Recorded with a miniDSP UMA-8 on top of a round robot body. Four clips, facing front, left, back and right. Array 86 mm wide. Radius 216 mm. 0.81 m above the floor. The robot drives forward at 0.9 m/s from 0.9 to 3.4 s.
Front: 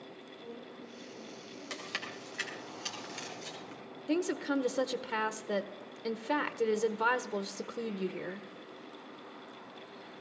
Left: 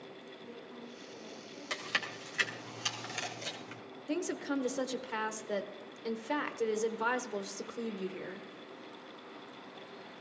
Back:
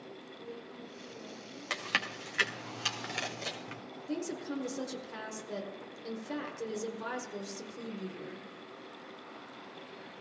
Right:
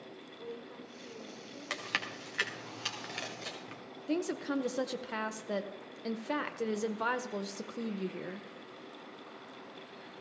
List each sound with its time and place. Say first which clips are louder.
0.4 s a woman speaking: right 6 dB, even; 90° right, 6 m; by 1.8 s 100° right, 6 m
1.7 s chewing: even, back 7 dB; 150° right, 1.9 m; by 3.8 s 160° right, 3.5 m
4.1 s a woman speaking: right 1 dB, front 6 dB; 30° right, 1.1 m